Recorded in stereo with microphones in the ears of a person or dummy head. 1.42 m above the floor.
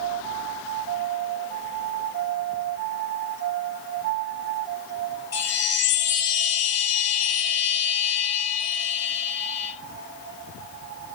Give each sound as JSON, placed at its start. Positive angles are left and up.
{"t": 5.3, "sound": "a chime", "side_deg": 25, "distance_m": 1.4}